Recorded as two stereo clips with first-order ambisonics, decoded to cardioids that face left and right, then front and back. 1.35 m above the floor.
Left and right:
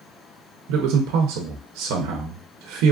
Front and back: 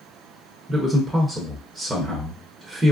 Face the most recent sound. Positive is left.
turn(degrees=-95)